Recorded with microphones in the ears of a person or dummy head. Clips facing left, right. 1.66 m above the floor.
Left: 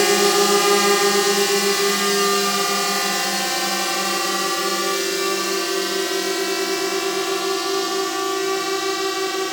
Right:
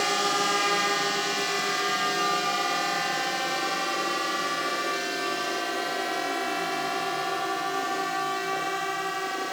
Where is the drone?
75° left (ahead or behind); by 9.5 s 65° left (ahead or behind).